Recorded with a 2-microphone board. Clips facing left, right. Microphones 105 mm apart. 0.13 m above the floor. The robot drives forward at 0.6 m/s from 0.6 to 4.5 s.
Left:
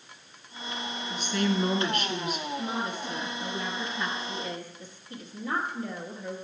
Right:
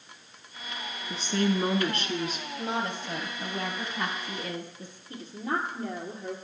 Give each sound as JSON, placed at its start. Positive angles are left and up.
{"t": 1.1, "sound": "a woman speaking", "side_deg": -35, "distance_m": 1.3}
{"t": 2.6, "sound": "a woman speaking", "side_deg": -65, "distance_m": 2.5}
{"t": 5.1, "sound": "a woman speaking", "side_deg": -35, "distance_m": 2.5}